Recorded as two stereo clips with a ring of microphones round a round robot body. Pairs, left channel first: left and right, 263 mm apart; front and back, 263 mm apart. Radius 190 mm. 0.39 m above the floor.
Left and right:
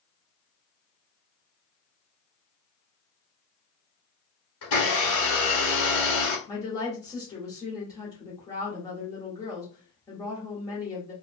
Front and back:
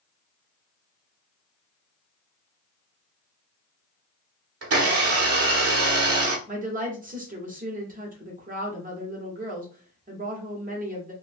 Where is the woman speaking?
155° left, 1.1 m.